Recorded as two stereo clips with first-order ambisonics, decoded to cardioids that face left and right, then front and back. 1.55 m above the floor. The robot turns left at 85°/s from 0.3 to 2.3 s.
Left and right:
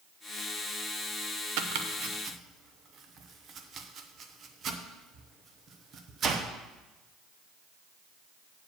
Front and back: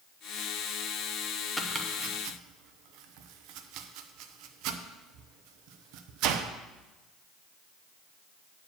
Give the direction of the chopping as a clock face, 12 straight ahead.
3 o'clock.